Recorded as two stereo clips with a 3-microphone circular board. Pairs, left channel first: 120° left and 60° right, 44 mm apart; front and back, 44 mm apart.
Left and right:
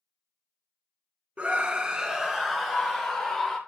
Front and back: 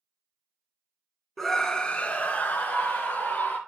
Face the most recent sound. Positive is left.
turn(degrees=35)